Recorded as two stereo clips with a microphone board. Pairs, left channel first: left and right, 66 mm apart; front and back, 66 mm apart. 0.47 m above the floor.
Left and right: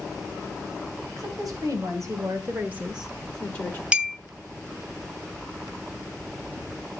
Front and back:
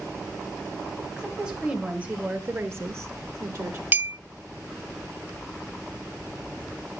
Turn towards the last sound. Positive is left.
turn(degrees=-145)